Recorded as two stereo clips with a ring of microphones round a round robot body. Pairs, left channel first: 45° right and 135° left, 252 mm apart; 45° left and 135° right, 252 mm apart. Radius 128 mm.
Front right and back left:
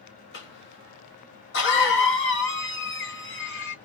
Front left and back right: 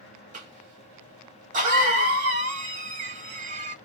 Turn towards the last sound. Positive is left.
turn(degrees=-80)